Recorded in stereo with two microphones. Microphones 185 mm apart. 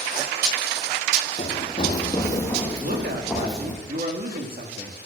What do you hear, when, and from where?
1.4 s running footsteps: 40° left (ahead or behind), 1.6 m; by 3.8 s 5° right (ahead or behind), 2.5 m
2.8 s a woman speaking: 55° right (ahead or behind), 2 m